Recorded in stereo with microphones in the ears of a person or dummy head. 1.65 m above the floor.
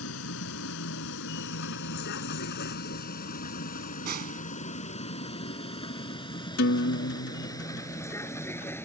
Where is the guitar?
70° left (ahead or behind).